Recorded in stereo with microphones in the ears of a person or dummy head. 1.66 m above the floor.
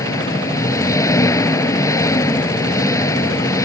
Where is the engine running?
15° left (ahead or behind).